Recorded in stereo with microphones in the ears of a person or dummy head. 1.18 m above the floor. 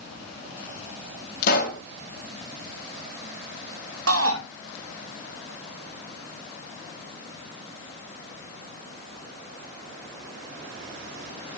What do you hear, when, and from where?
1.4 s a pop: 55° left (ahead or behind), 2.5 m
4.1 s a shout: 80° right, 2.5 m